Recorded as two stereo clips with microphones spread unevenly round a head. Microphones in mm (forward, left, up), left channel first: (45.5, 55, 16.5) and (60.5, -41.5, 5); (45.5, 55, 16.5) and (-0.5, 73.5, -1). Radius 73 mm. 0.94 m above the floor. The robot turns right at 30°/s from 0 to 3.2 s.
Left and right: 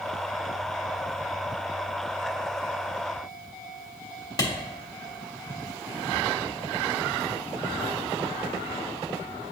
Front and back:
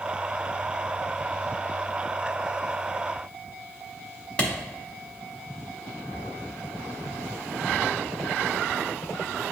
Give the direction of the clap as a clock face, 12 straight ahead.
10 o'clock.